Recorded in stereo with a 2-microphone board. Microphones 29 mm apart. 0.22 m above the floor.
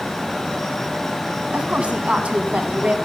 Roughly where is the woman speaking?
Right.